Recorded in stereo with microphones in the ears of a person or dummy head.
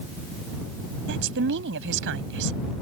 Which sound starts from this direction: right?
A woman speaking, at 1.1 s.